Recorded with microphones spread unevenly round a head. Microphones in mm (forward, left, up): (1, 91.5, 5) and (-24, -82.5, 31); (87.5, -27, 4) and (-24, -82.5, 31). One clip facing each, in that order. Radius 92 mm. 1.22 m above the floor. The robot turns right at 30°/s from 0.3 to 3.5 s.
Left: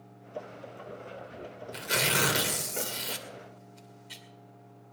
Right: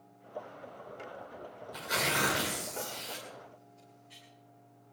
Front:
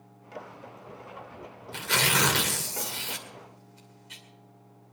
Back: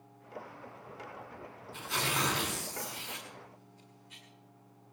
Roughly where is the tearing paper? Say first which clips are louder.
Left 3 dB, front 6 dB; ahead.